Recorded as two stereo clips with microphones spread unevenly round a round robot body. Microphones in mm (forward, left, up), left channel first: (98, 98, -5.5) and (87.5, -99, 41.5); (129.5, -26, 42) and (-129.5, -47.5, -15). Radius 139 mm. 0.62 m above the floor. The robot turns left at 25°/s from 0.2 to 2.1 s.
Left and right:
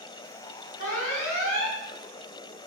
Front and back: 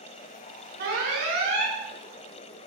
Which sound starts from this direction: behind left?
An alarm, at 0.8 s.